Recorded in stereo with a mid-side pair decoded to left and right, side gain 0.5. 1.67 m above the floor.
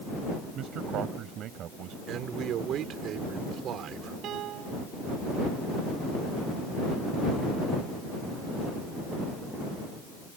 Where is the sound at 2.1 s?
65° right.